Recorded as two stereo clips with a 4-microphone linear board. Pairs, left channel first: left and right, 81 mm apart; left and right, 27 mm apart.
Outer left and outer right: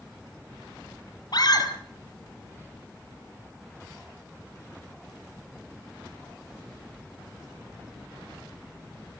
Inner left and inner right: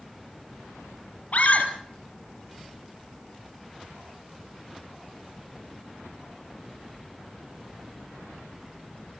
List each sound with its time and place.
1.3 s a scream: 55° left (ahead or behind), 2.5 m